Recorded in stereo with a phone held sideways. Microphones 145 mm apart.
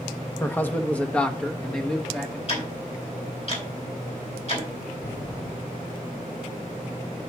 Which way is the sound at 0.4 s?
15° left (ahead or behind).